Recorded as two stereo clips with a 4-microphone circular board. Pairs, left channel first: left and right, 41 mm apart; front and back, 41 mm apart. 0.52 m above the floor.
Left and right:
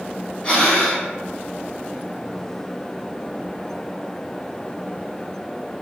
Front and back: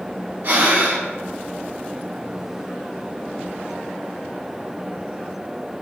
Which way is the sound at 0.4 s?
155° left.